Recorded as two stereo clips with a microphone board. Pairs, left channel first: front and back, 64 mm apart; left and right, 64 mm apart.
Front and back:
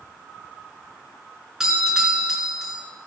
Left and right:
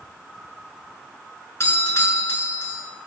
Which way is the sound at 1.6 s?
100° left.